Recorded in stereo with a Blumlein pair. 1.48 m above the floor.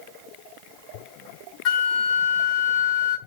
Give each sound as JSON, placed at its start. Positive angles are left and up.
{"t": 1.6, "sound": "a flute", "azimuth_deg": 35, "distance_m": 1.5}